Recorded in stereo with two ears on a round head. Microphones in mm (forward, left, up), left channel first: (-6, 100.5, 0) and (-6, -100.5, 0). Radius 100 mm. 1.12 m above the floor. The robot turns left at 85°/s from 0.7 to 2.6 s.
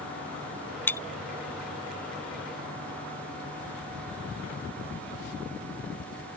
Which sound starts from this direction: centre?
Breaking glass, at 0.9 s.